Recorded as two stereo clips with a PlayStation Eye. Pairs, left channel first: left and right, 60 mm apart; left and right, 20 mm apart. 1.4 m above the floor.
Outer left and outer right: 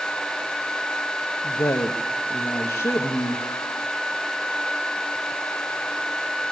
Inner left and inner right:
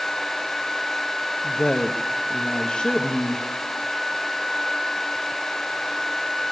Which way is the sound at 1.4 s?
75° left (ahead or behind).